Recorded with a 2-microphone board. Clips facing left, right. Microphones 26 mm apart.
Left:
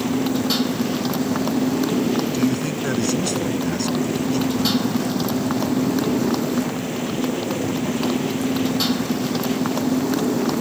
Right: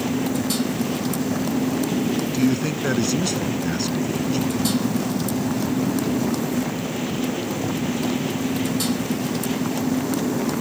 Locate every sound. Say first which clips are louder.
0.0 s a motorcycle: left 2 dB; 30° left (ahead or behind)
2.3 s a man speaking: even; 10° right (ahead or behind)